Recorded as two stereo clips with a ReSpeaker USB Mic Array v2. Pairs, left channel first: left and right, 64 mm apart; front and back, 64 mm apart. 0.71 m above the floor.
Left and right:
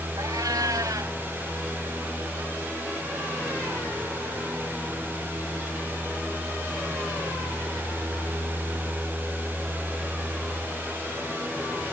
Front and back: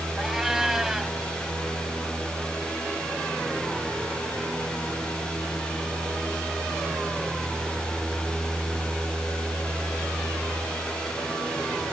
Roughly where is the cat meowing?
Right.